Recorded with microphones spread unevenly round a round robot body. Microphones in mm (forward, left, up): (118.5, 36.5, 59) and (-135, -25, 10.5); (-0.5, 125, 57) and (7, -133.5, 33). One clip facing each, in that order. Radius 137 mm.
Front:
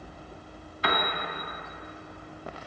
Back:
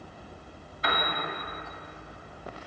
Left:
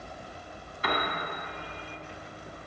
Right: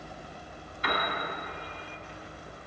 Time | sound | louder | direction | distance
0.8 | a piano | front 2 dB, left 2 dB | 45° left | 1.3 m